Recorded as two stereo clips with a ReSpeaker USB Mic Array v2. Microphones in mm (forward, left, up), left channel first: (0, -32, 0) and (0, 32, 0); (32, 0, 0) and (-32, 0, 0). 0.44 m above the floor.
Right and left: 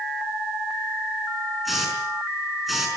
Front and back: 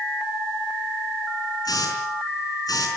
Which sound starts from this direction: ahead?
A hiss, at 1.6 s.